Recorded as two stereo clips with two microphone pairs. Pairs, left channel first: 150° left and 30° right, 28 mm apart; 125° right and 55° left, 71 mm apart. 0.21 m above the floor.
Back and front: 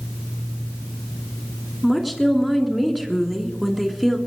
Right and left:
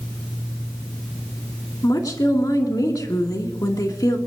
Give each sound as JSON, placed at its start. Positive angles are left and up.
{"t": 1.8, "sound": "a woman speaking", "azimuth_deg": -120, "distance_m": 2.5}